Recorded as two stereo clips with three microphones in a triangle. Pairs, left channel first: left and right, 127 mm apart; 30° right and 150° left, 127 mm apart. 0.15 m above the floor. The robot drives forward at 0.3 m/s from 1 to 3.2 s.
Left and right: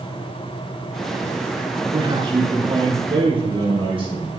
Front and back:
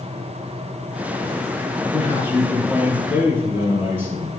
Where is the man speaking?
135° right, 3.5 m; by 4.3 s 140° right, 4 m.